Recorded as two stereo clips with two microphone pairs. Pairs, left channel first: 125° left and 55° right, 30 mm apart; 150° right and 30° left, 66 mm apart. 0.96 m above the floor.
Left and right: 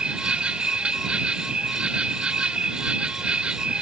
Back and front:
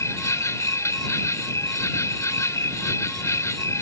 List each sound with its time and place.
0.0 s an insect: 110° right